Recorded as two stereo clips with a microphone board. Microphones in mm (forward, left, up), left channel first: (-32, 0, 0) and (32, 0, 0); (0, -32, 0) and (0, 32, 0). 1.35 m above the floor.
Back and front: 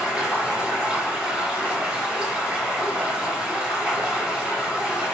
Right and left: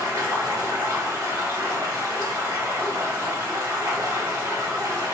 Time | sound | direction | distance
0.0 | running water | 80° left | 1.7 m